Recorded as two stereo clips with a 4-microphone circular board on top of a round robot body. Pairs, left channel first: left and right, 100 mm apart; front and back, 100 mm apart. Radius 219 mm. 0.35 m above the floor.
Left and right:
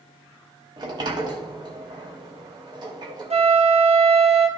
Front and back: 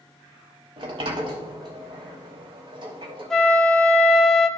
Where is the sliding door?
140° right, 0.5 m.